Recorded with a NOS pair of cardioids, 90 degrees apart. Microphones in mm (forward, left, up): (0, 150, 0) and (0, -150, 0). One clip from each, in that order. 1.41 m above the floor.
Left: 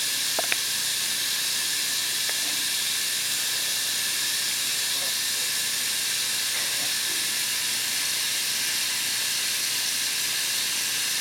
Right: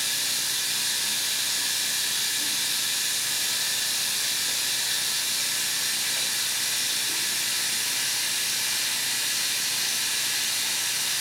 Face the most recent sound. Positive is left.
turn(degrees=0)